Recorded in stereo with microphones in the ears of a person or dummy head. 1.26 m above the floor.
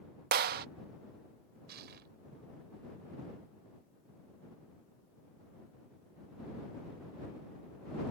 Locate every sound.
0.3 s a clap: 45° right (ahead or behind)
1.7 s crushing: 50° right (ahead or behind)